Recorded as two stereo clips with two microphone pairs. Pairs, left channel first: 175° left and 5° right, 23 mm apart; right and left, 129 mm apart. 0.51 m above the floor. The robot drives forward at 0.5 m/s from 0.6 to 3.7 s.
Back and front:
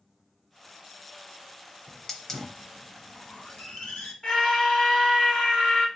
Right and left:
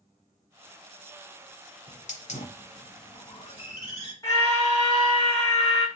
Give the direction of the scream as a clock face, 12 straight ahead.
5 o'clock.